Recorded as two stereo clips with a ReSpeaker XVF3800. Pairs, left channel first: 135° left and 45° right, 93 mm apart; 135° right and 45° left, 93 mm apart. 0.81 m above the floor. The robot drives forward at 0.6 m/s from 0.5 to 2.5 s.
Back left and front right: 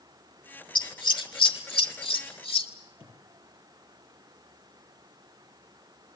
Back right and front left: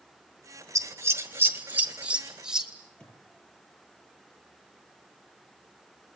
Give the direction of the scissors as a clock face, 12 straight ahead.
9 o'clock.